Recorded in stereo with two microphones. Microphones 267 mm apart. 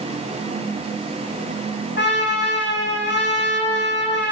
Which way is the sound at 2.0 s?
45° left (ahead or behind).